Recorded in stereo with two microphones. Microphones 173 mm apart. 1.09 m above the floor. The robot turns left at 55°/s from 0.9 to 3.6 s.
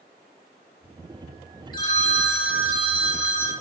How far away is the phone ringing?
About 0.6 m.